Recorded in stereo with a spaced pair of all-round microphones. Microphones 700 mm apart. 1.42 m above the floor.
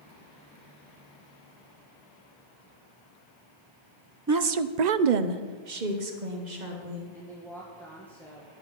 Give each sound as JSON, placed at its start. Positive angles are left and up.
{"t": 4.3, "sound": "a woman speaking", "side_deg": -25, "distance_m": 0.5}
{"t": 7.1, "sound": "a woman speaking", "side_deg": 0, "distance_m": 1.3}